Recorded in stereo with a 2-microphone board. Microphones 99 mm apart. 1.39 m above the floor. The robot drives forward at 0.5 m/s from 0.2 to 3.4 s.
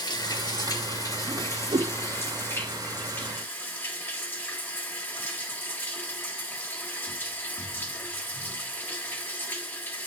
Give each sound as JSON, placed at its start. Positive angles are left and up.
{"t": 0.0, "sound": "running water", "side_deg": 50, "distance_m": 1.0}
{"t": 1.3, "sound": "a whoosh", "side_deg": -60, "distance_m": 0.6}